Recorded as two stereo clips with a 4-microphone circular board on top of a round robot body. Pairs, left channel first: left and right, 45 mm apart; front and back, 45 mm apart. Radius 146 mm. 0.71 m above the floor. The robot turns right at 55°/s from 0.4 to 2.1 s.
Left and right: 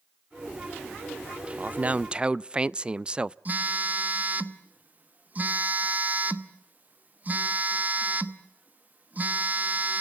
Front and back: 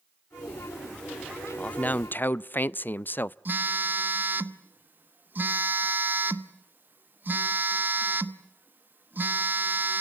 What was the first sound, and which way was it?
A man speaking, 55° right.